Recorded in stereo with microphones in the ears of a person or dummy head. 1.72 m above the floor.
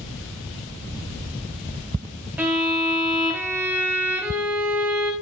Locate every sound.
2.4 s a violin: 15° right (ahead or behind), 1.0 m